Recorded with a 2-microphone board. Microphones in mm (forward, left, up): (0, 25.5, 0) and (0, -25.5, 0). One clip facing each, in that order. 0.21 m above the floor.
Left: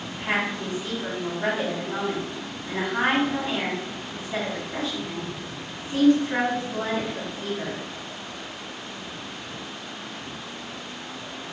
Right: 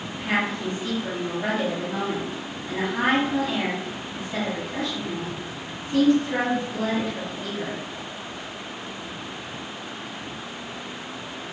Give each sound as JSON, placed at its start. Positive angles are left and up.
{"t": 0.1, "sound": "a woman speaking", "side_deg": 30, "distance_m": 1.1}